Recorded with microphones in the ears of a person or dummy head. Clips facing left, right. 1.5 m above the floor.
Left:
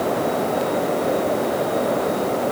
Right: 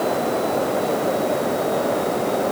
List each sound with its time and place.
Only background noise.